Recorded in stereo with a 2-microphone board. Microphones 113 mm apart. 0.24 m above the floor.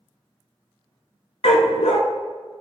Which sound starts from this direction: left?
A dog barking, at 1.4 s.